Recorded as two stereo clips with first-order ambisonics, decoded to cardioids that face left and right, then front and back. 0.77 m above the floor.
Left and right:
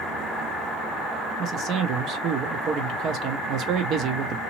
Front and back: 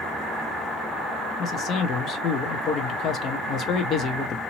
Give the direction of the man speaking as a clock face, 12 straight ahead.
2 o'clock.